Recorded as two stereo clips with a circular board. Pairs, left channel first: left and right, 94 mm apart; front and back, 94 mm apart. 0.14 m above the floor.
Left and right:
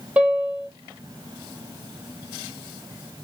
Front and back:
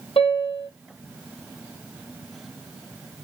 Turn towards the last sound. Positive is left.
turn(degrees=-20)